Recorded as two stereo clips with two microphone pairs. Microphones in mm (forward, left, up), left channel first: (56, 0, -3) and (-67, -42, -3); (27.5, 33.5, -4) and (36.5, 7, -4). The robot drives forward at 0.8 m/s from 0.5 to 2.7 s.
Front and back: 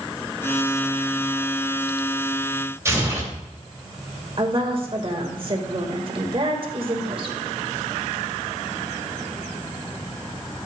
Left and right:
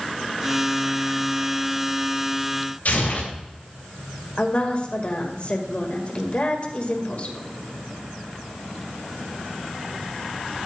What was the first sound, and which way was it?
Tearing paper, 130° left.